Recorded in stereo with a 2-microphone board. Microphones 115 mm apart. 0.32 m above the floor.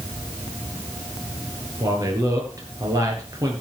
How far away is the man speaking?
About 4.5 m.